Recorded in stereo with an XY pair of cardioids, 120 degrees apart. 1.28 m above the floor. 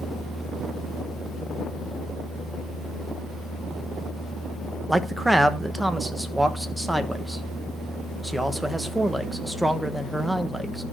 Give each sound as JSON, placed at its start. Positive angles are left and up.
{"t": 4.9, "sound": "a man speaking", "azimuth_deg": -5, "distance_m": 1.3}